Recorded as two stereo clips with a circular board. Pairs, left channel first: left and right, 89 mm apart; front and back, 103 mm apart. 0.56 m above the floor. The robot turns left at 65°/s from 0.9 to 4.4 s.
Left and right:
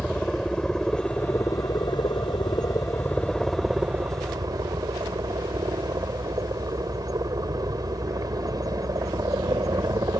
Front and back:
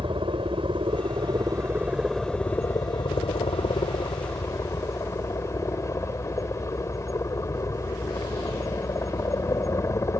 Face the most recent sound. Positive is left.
turn(degrees=-55)